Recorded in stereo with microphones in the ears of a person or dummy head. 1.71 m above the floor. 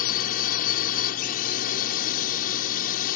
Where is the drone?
50° left (ahead or behind).